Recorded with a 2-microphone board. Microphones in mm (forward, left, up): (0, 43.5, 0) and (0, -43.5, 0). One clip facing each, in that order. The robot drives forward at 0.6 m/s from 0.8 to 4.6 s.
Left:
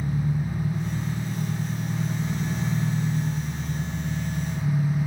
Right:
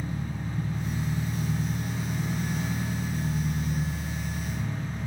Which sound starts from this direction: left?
An engine running, at 0.0 s.